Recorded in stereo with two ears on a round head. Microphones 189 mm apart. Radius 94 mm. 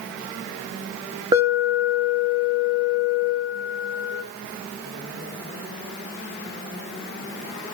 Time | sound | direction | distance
1.3 | an alarm | 20° right (ahead or behind) | 2.0 m